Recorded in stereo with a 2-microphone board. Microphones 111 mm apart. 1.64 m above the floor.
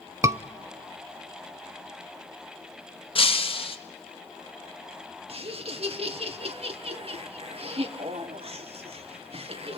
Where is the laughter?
60° right (ahead or behind), 1.7 m.